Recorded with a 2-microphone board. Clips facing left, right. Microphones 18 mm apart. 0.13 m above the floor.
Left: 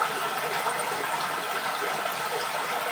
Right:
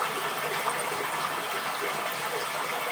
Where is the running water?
40° left (ahead or behind), 1.0 m.